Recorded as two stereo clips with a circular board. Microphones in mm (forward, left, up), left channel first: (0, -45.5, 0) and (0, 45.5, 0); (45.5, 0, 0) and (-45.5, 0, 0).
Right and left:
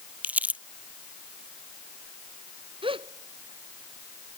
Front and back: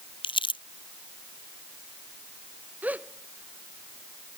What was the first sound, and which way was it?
Crumpling, 15° left.